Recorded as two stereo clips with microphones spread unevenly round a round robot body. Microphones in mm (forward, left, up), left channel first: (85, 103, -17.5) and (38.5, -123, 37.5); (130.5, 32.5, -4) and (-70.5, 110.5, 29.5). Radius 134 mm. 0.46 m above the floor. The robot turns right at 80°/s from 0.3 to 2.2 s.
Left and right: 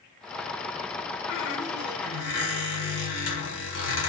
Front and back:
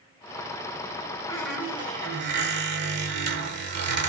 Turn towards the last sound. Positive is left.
turn(degrees=120)